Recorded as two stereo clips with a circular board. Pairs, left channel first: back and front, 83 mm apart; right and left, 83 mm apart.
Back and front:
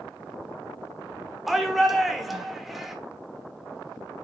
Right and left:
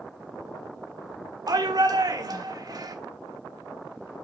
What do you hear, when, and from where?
1.5 s a shout: 90° left, 1.4 m